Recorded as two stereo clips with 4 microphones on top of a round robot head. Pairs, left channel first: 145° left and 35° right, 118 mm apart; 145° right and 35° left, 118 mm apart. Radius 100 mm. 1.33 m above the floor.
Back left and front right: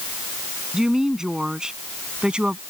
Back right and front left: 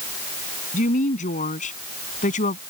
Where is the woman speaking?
125° right; by 2.6 s 120° right.